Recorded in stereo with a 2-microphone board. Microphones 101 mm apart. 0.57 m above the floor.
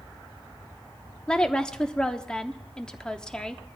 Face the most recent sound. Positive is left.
turn(degrees=10)  # may be behind; listen again after turning